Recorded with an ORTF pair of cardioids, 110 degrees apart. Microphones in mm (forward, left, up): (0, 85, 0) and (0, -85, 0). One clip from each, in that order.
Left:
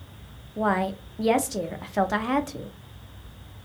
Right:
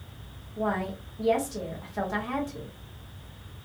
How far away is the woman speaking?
About 0.6 m.